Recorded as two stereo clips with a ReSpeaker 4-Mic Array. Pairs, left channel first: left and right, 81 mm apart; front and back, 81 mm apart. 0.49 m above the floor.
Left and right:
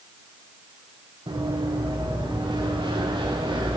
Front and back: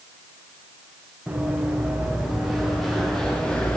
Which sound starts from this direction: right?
Running footsteps, at 1.3 s.